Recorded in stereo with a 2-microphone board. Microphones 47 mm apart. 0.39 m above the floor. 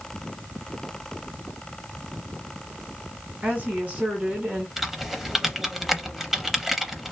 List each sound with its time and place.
3.4 s a woman speaking: 30° right (ahead or behind), 1.6 m
4.8 s typing on a keyboard: 5° right (ahead or behind), 0.5 m